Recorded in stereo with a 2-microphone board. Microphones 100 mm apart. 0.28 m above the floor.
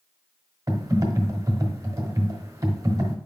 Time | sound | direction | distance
0.7 | typing on a keyboard | 30° right (ahead or behind) | 1.2 m